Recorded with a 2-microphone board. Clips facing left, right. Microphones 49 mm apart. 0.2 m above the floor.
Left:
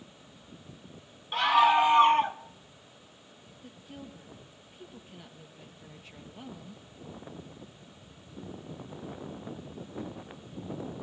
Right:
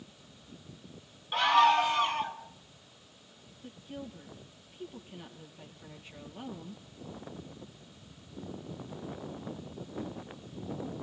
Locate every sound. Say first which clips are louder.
1.3 s a scream: left 1 dB; centre (ahead or behind), 1.3 m; by 2.4 s 45° left (ahead or behind), 1.4 m
3.6 s a woman speaking: right 3 dB; centre (ahead or behind), 4 m